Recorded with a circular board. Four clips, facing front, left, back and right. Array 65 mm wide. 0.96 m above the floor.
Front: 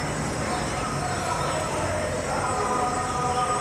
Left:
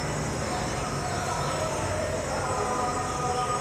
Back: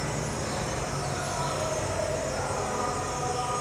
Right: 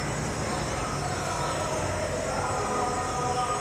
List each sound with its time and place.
0.0 s an insect: 5° right, 0.8 m